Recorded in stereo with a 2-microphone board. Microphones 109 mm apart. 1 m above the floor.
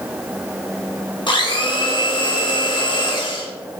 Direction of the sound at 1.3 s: 50° left (ahead or behind).